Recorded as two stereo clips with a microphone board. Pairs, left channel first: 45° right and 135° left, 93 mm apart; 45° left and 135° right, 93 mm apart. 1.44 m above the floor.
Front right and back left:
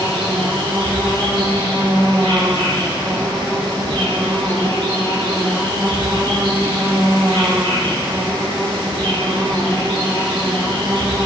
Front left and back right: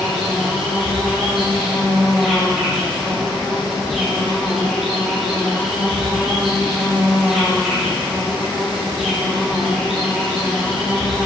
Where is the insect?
135° left, 3.5 m.